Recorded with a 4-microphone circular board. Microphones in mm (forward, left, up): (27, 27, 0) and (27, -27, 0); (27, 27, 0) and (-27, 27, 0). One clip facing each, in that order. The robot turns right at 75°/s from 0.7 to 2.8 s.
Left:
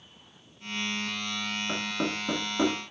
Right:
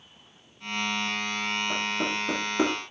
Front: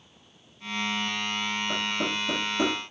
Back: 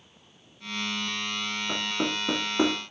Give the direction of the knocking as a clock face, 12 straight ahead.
8 o'clock.